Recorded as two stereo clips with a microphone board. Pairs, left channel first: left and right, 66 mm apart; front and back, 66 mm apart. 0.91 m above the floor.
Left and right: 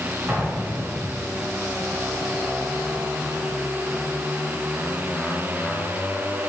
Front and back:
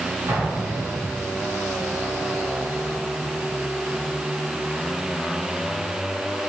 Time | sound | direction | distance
0.3 | an explosion | 145° right | 4 m